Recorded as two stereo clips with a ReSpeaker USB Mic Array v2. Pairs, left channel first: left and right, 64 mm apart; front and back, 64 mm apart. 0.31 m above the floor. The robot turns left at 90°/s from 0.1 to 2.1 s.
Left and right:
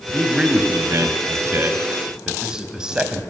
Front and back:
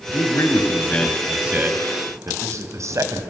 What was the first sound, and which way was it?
A man speaking, 10° left.